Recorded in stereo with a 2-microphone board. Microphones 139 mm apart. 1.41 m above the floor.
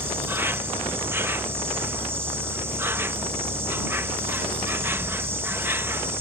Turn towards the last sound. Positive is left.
turn(degrees=-15)  # may be behind; listen again after turning